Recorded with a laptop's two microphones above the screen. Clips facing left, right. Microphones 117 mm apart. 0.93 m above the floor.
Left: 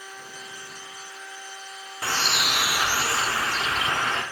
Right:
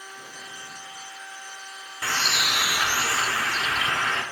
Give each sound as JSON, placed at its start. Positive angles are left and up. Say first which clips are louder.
{"t": 2.0, "sound": "a bird", "louder": "left 1 dB", "side_deg": 25, "distance_m": 0.6}